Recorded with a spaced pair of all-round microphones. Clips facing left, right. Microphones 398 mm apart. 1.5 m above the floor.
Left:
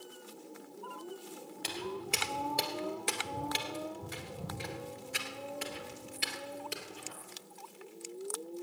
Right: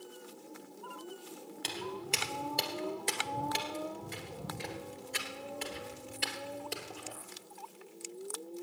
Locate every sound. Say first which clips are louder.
1.6 s footsteps: left 1 dB; 15° left (ahead or behind), 1.9 m